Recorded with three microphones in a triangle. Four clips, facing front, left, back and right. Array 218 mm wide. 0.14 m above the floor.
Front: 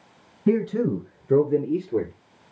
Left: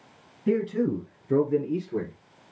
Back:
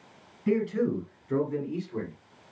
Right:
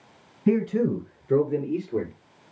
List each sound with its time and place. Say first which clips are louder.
0.5 s a man speaking: right 2 dB, front 4 dB; 40° right, 1.8 m; by 2.1 s 5° left, 2.5 m